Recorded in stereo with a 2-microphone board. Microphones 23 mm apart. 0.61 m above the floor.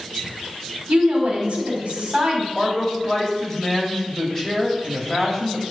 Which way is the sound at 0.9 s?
55° right (ahead or behind).